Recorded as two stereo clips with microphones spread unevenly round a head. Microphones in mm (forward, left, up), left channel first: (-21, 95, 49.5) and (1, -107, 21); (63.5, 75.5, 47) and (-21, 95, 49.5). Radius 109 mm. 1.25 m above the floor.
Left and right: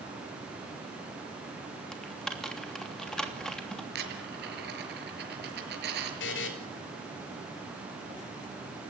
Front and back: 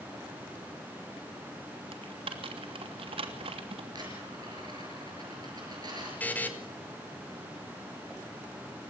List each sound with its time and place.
1.9 s typing on a keyboard: 175° right, 3 m
4.0 s a dropped coin: 125° right, 5.5 m
6.2 s a buzzer: 60° left, 4.5 m